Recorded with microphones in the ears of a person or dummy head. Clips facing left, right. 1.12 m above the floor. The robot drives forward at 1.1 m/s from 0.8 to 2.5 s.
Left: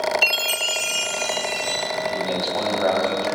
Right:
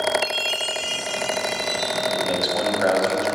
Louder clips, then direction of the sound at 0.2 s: Even; 55° left (ahead or behind).